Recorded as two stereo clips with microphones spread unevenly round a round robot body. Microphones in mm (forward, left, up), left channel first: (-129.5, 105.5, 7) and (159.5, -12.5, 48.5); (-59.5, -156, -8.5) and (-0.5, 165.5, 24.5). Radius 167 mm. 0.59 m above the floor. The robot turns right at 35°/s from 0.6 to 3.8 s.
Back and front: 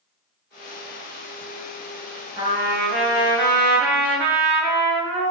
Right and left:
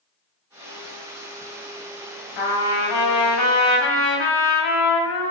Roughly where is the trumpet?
Right.